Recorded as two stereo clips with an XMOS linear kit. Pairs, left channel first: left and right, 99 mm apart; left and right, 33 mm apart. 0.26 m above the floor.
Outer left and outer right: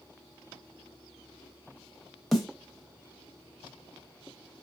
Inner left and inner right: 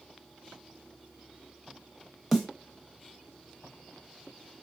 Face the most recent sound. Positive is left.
turn(degrees=0)  # may be behind; listen again after turning